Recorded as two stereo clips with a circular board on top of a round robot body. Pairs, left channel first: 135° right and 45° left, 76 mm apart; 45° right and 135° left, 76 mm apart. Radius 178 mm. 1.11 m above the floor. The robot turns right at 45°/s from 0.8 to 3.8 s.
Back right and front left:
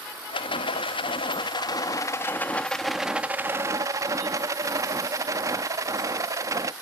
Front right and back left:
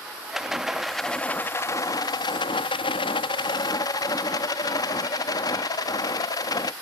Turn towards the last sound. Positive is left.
turn(degrees=-5)